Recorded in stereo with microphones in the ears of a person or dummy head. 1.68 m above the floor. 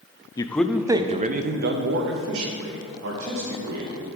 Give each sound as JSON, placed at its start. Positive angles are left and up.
{"t": 0.4, "sound": "a man speaking", "side_deg": 25, "distance_m": 0.6}